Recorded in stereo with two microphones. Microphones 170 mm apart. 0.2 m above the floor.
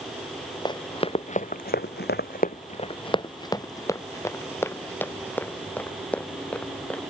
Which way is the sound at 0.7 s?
25° left (ahead or behind).